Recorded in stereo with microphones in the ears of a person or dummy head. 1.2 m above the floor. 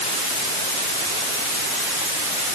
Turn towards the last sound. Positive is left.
No sound to turn to.